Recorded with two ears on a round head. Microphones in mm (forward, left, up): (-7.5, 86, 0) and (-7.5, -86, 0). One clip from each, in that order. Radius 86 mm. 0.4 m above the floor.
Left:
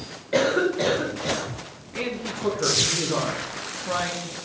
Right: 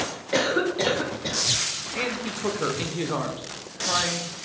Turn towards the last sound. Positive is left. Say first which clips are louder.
# right 1 dB
turn(degrees=-25)  # may be behind; listen again after turning